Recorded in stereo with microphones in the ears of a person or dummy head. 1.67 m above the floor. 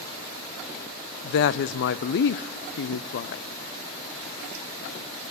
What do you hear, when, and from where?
1.2 s a woman speaking: 60° left (ahead or behind), 0.8 m